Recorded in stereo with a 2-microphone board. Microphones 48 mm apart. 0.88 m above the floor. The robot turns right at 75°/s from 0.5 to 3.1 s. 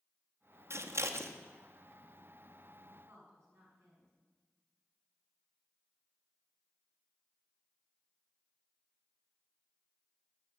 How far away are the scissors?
About 0.9 m.